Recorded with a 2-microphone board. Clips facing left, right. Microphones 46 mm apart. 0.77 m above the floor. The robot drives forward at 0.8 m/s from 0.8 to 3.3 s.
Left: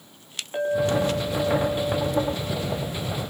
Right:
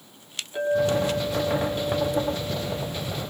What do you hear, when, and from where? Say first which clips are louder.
0.5 s a clink: even; 45° left (ahead or behind), 5 m; by 3.2 s 30° left (ahead or behind), 6.5 m